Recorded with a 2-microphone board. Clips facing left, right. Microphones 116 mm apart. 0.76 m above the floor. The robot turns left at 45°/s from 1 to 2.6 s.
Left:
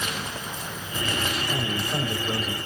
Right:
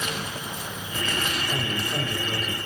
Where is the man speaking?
175° right, 3 m; by 2.6 s 135° left, 3 m.